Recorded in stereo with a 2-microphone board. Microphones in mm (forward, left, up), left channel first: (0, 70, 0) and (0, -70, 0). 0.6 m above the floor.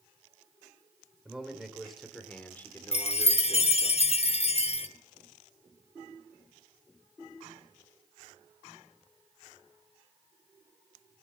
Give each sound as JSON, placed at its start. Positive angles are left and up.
{"t": 1.2, "sound": "a man speaking", "side_deg": -5, "distance_m": 2.0}
{"t": 2.9, "sound": "a chime", "side_deg": 45, "distance_m": 0.6}